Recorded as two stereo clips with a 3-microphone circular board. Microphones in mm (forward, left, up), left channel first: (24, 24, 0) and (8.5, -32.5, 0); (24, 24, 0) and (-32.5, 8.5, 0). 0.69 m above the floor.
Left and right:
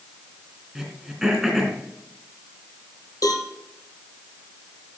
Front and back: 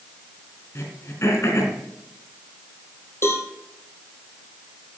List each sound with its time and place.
0.8 s throat clearing: 25° right, 2.5 m
3.2 s a cowbell: 60° left, 3.5 m